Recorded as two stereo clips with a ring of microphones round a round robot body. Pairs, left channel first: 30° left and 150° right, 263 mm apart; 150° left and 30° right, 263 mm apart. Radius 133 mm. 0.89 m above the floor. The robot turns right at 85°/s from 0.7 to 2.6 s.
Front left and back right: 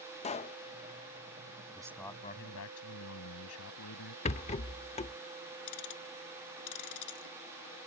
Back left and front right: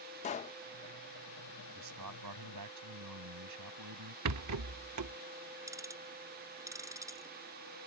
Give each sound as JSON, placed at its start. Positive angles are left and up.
{"t": 0.2, "sound": "a pop", "azimuth_deg": 90}
{"t": 1.8, "sound": "a man speaking", "azimuth_deg": -80}
{"t": 4.2, "sound": "a rattle", "azimuth_deg": -35}
{"t": 5.7, "sound": "ticking", "azimuth_deg": 50}